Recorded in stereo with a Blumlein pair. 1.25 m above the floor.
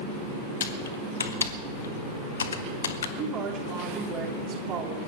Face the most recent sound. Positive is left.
turn(degrees=-30)